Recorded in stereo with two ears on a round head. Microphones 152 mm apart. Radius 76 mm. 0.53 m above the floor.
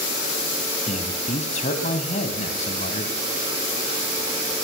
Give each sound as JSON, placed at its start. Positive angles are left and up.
{"t": 0.9, "sound": "a man speaking", "side_deg": 45, "distance_m": 3.5}